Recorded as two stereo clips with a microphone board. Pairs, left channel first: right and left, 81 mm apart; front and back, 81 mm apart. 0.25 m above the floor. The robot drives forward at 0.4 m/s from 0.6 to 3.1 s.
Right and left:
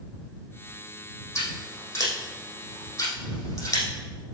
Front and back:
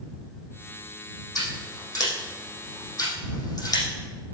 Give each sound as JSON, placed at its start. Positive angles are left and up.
{"t": 1.4, "sound": "scissors", "azimuth_deg": -40, "distance_m": 5.5}